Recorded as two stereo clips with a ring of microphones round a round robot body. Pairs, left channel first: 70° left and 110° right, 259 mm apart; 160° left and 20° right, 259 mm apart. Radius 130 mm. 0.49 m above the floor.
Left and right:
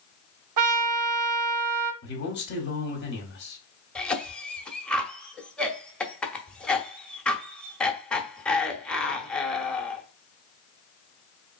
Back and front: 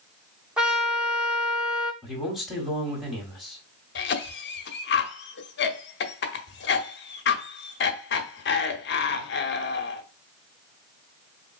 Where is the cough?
150° left, 0.8 m.